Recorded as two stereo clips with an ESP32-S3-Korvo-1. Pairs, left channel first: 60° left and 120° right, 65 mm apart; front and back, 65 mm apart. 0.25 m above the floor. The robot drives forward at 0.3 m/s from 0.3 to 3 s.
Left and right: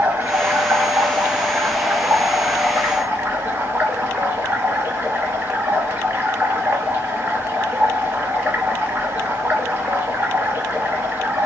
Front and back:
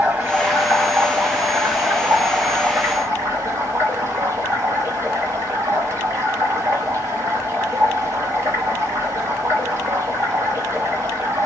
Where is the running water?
140° right, 1.2 m; by 11.5 s 160° right, 1.7 m.